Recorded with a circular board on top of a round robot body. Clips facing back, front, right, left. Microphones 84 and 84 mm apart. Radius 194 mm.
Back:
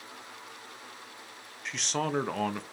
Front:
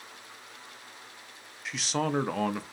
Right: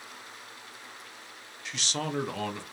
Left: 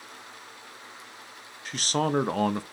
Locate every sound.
1.6 s a man speaking: 85° left, 0.7 m